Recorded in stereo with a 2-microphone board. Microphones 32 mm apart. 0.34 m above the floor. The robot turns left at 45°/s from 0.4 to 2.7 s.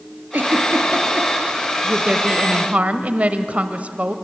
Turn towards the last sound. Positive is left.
turn(degrees=-90)